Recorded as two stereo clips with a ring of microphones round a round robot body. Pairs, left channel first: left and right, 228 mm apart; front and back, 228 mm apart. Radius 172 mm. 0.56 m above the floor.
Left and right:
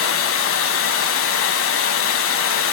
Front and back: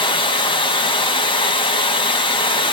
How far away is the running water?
About 0.8 m.